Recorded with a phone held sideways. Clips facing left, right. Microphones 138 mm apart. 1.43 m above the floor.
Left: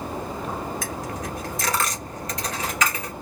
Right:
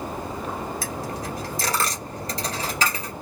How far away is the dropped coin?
About 1.8 m.